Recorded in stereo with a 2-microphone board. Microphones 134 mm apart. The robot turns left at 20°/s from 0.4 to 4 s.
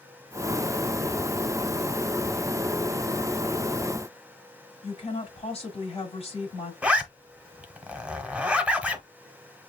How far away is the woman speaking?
About 1.9 m.